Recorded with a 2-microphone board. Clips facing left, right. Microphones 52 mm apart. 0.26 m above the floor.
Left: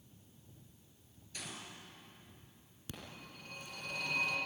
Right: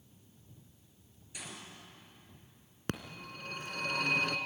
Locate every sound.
1.3 s a gunshot: 15° right (ahead or behind), 4.5 m
2.9 s a phone ringing: 70° right (ahead or behind), 1.9 m